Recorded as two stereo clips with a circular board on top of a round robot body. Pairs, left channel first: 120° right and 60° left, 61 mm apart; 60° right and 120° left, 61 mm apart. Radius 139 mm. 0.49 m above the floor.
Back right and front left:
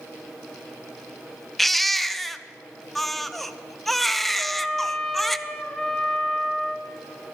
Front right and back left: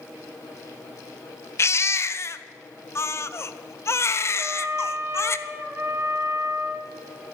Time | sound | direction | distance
1.6 | a baby crying | 30° right | 0.6 m
4.4 | a trumpet | 155° left | 1.3 m